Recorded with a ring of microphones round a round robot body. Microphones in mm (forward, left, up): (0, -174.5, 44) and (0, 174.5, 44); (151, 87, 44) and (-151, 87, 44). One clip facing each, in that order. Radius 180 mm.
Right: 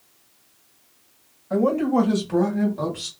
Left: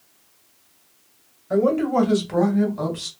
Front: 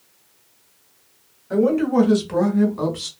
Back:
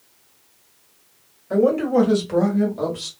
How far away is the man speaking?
About 2.0 m.